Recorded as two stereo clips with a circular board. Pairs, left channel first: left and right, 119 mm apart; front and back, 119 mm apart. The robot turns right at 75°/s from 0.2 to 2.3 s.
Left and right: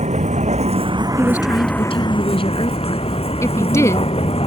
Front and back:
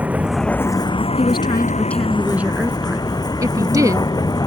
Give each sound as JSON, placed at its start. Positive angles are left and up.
{"t": 0.0, "sound": "a vehicle", "azimuth_deg": -100}
{"t": 1.2, "sound": "a woman speaking", "azimuth_deg": 20}
{"t": 3.4, "sound": "a woman speaking", "azimuth_deg": 140}